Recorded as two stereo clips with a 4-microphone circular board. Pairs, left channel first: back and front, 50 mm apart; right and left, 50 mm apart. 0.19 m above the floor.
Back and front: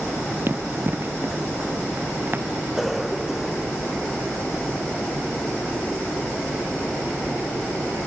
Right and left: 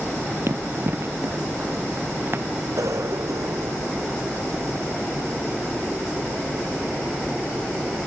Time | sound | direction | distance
0.5 | running footsteps | 45° left | ?
2.8 | a cough | 85° left | ?